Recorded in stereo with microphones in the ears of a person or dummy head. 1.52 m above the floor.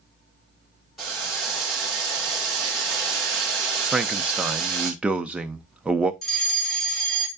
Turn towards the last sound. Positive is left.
turn(degrees=0)  # may be behind; listen again after turning